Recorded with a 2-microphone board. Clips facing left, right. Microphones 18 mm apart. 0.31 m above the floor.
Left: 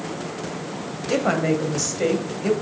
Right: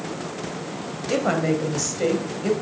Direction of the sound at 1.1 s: 5° left (ahead or behind).